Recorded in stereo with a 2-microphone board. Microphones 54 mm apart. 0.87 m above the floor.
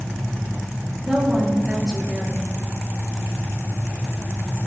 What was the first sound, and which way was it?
A woman speaking, 15° right (ahead or behind).